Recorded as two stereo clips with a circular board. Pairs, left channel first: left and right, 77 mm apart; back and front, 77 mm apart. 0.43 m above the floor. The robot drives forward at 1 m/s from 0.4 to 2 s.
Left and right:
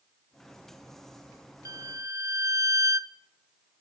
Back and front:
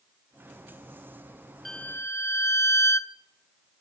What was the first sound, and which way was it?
A violin, 95° right.